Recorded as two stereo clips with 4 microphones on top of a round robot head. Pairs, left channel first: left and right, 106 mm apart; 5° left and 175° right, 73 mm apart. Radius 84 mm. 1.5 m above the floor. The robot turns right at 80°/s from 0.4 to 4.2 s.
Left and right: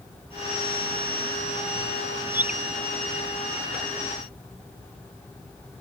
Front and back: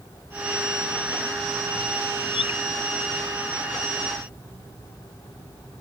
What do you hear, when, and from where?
2.3 s a bird: 25° right; by 2.6 s straight ahead